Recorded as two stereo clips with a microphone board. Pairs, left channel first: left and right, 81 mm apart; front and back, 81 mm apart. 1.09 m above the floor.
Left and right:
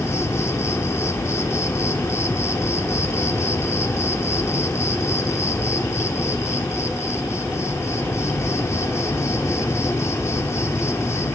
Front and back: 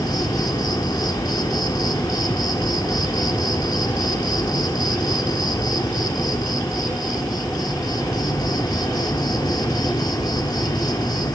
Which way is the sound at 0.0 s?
35° left.